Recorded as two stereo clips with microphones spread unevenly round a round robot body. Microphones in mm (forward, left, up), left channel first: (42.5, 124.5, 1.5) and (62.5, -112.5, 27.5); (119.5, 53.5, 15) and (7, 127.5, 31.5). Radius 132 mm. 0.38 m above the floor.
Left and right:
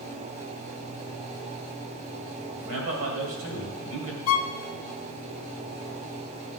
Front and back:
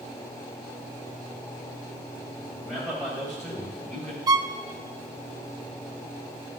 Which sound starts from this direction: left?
A violin, at 4.3 s.